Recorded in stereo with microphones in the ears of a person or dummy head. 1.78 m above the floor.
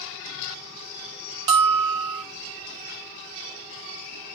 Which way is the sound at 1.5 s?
25° right (ahead or behind).